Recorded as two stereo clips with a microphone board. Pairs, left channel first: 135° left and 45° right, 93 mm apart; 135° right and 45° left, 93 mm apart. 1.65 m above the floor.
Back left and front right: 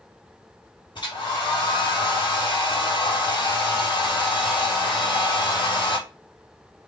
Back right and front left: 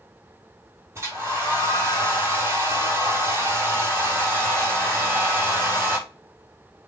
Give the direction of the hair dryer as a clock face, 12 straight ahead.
9 o'clock.